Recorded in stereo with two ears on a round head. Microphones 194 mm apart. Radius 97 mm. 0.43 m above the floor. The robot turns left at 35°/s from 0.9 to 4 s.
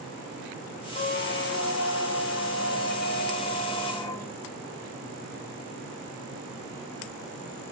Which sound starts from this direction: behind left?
A squeak, at 0.9 s.